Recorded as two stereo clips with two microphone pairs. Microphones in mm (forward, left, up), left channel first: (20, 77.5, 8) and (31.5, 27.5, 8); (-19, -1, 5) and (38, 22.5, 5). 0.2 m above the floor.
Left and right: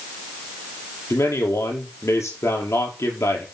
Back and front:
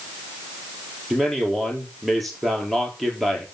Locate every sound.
1.1 s a man speaking: 115° left, 4 m